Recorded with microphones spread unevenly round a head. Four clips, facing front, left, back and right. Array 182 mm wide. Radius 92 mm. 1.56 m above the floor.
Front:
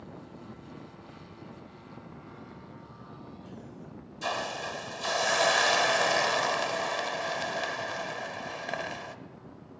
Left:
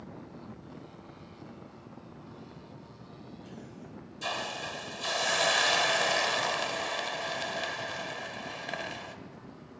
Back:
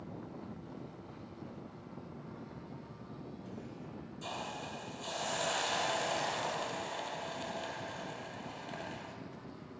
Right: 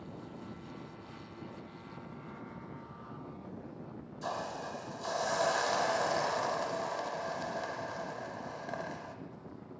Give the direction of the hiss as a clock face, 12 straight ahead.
12 o'clock.